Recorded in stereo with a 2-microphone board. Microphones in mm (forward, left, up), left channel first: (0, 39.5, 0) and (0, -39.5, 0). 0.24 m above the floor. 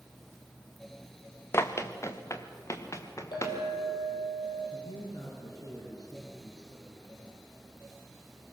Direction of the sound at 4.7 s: 50° left (ahead or behind).